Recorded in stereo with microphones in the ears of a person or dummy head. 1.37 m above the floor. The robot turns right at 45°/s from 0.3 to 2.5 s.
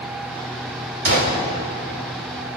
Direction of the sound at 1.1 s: 70° right (ahead or behind).